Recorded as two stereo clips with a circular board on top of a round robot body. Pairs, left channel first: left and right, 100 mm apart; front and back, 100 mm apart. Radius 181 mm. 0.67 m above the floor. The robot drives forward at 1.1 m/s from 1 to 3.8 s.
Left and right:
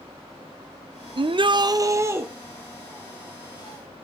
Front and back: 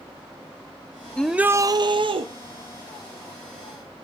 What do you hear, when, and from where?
1.2 s a shout: 75° right, 0.7 m; by 2.3 s 155° right, 1.3 m